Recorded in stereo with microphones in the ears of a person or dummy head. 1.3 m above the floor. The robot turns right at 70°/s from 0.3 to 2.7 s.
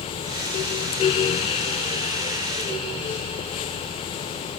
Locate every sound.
Only background noise.